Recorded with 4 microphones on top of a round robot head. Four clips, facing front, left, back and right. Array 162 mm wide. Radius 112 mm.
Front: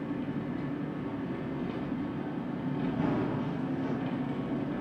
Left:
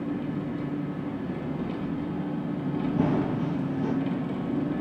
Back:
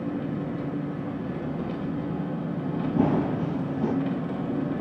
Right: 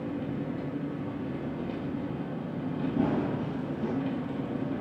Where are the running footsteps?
170° left, 0.7 m.